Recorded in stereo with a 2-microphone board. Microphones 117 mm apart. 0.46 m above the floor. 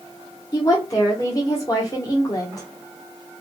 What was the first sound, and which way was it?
A woman speaking, 30° left (ahead or behind).